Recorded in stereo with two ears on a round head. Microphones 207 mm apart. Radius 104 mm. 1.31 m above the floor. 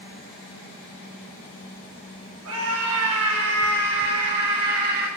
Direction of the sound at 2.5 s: 65° right (ahead or behind).